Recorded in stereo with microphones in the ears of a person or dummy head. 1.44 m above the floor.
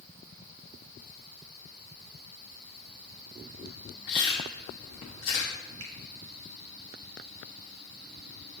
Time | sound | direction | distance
4.1 | chewing | 25° left (ahead or behind) | 0.9 m
5.8 | a finger snap | 85° right | 2 m